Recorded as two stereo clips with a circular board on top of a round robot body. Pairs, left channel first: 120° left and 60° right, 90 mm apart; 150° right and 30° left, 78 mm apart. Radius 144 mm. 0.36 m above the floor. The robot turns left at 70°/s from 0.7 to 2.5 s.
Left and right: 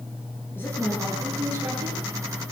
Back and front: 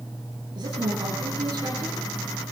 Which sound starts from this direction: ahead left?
A woman speaking, at 0.6 s.